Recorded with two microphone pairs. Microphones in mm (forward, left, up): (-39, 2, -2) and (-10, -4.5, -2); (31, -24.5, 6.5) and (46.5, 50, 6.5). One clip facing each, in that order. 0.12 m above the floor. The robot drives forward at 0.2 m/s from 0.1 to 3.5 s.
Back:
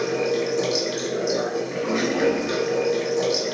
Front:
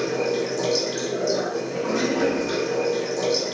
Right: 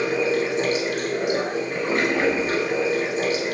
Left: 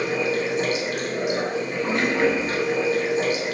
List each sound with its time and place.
0.0 s running water: 145° right, 1.6 m; by 3.6 s 160° right, 2 m